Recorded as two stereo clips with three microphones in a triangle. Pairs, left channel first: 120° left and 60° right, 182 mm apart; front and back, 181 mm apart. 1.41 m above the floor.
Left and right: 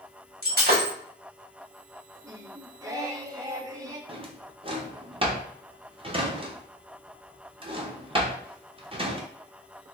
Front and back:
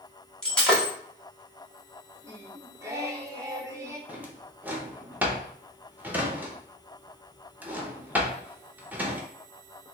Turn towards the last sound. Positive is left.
turn(degrees=-105)